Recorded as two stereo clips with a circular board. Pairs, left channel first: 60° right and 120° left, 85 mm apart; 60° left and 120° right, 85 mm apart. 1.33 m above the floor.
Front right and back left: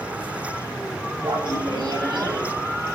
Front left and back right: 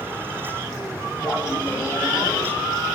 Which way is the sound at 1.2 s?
110° left.